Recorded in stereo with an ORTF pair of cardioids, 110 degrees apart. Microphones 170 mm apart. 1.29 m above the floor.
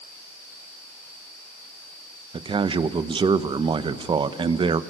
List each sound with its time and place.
2.3 s a man speaking: 30° right, 1.1 m